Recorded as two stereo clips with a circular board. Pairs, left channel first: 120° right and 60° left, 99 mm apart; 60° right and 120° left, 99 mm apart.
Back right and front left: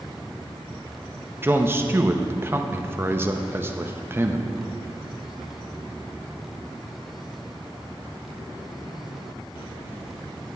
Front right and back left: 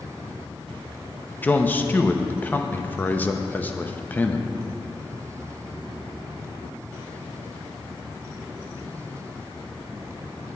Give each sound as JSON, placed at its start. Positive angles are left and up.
{"t": 1.4, "sound": "a man speaking", "azimuth_deg": 5, "distance_m": 0.6}